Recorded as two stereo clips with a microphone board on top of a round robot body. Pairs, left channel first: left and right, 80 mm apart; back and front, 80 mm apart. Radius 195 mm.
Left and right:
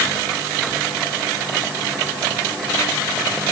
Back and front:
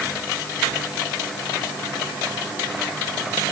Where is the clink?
I don't hear a clink.